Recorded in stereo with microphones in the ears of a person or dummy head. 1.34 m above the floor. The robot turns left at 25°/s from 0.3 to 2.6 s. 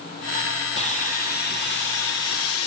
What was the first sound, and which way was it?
Sawing, 150° left.